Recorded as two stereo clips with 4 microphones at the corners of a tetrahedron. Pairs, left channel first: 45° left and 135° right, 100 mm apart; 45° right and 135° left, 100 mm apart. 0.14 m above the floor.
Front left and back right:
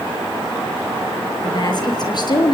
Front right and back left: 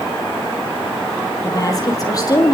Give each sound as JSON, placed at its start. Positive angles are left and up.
{"t": 1.4, "sound": "a woman speaking", "azimuth_deg": 5, "distance_m": 3.5}